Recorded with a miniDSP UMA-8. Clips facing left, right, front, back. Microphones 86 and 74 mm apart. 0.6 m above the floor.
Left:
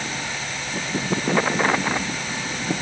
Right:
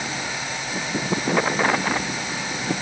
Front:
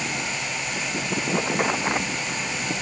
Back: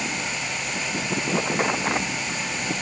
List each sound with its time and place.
Only background noise.